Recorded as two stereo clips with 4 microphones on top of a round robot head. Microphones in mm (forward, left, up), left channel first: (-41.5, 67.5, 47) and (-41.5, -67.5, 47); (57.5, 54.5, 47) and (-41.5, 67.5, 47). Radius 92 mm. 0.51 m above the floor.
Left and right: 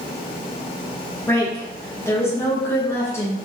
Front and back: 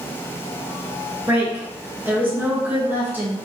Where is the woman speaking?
130° left, 1.1 m.